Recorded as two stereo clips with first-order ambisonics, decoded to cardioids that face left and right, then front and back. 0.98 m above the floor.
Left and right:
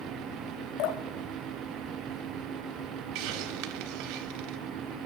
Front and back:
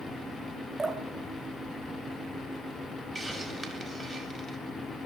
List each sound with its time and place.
0.8 s dripping: 105° left, 1.1 m
3.1 s a hiss: 95° right, 1.4 m